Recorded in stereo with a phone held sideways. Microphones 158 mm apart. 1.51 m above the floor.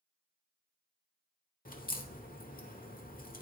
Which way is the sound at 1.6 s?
65° left (ahead or behind).